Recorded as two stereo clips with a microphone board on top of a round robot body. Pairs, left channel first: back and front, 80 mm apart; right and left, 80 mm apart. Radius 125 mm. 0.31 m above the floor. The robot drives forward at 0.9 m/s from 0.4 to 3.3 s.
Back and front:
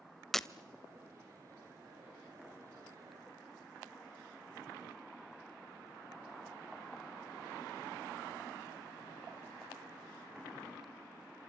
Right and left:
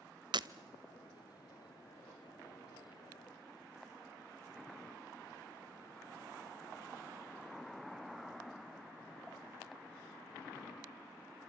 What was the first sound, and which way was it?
Breaking glass, 95° left.